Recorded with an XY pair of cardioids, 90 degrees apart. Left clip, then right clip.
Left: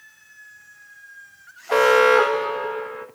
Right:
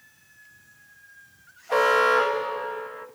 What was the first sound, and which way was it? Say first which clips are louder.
An alarm: left 4 dB; 65° left.